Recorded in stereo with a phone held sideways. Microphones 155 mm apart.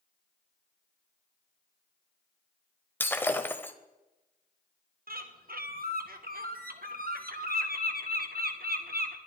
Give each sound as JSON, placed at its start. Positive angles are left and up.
{"t": 3.0, "sound": "breaking glass", "side_deg": 15, "distance_m": 1.1}
{"t": 5.1, "sound": "a bird", "side_deg": -70, "distance_m": 1.7}